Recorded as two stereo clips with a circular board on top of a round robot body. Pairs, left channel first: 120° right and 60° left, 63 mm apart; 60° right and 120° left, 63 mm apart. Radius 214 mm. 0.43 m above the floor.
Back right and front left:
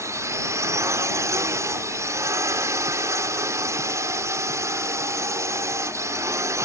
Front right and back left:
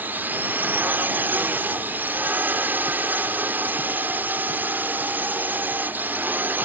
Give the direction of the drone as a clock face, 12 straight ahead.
10 o'clock.